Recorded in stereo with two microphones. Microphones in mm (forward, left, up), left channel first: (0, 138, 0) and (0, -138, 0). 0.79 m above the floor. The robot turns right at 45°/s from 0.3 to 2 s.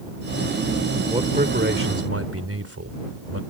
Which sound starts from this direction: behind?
A man speaking, at 1.1 s.